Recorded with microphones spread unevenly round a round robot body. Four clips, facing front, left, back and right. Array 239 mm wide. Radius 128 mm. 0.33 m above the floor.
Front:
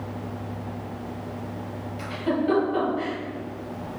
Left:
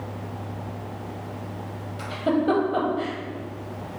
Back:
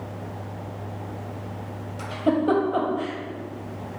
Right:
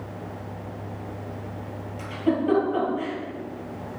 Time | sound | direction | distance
2.0 | a giggle | 145° left | 1.5 m